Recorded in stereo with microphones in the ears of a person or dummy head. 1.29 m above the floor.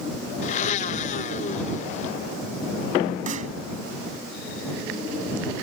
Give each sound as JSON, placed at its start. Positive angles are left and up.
{"t": 0.4, "sound": "a blender", "side_deg": 45}
{"t": 3.3, "sound": "a snare drum", "side_deg": -45}